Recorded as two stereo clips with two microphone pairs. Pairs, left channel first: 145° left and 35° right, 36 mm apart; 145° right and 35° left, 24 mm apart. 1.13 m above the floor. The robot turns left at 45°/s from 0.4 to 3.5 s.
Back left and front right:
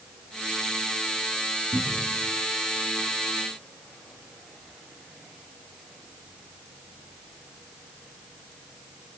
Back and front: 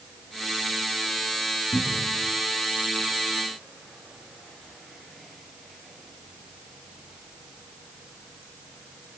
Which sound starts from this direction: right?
A cupboard door, at 1.7 s.